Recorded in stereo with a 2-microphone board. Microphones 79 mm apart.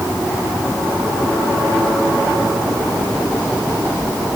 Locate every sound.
Only background noise.